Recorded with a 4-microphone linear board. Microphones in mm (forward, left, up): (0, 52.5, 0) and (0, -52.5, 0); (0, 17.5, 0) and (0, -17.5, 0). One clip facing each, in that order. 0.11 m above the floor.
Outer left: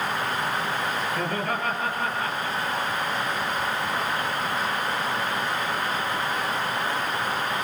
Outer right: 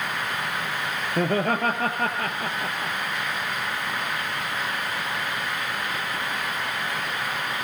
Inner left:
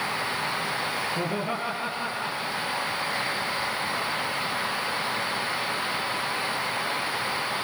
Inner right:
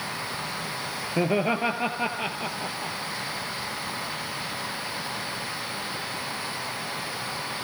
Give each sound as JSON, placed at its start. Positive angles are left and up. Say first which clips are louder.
{"t": 1.2, "sound": "laughter", "louder": "outer right 4 dB, inner right 4 dB", "side_deg": -45, "distance_m": 1.7}